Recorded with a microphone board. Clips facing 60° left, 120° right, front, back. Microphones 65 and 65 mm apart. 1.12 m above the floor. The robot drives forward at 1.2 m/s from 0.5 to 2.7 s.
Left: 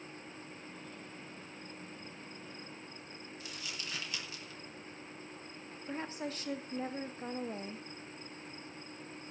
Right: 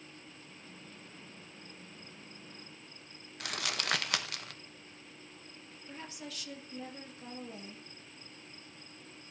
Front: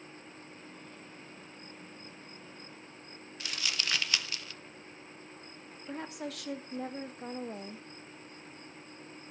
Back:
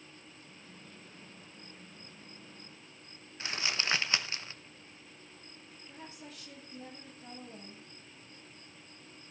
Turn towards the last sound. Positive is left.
turn(degrees=10)